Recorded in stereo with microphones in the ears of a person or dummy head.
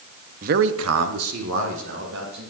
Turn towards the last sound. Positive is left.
turn(degrees=-60)  # may be behind; listen again after turning